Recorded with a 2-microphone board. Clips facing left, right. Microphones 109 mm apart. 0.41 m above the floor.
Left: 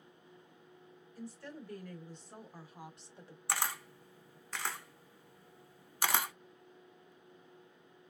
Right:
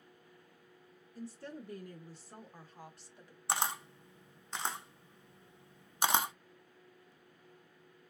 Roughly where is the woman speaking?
Right.